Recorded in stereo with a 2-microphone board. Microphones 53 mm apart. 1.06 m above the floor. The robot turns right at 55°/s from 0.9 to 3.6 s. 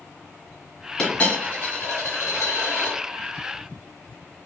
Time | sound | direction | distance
1.0 | a dropped coin | 15° left | 1.7 m